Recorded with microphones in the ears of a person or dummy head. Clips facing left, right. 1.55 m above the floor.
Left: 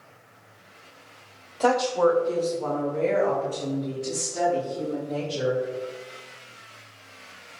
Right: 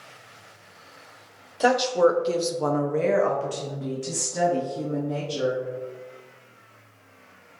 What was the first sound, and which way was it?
A woman speaking, 10° right (ahead or behind).